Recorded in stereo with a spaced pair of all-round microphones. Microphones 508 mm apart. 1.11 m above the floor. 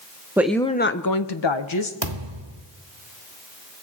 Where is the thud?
55° right (ahead or behind), 1.5 m.